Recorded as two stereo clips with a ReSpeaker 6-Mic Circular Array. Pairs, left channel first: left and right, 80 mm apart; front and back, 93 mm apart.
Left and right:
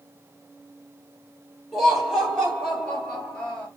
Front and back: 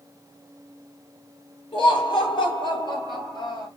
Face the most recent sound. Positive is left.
turn(degrees=15)